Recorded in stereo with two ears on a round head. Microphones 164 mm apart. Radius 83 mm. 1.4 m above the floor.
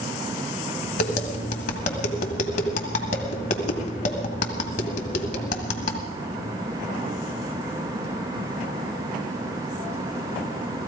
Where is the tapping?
50° left (ahead or behind), 1.7 m.